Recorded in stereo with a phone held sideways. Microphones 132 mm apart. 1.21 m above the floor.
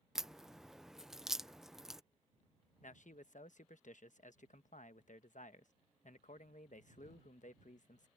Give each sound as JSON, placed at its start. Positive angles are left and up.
{"t": 0.1, "sound": "a crack", "side_deg": -5}
{"t": 2.8, "sound": "a man speaking", "side_deg": 75}